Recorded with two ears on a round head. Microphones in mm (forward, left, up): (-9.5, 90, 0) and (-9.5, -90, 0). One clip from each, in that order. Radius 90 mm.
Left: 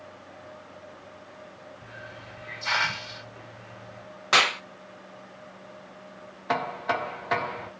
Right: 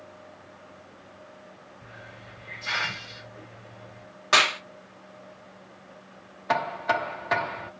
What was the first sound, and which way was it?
A hiss, 65° left (ahead or behind).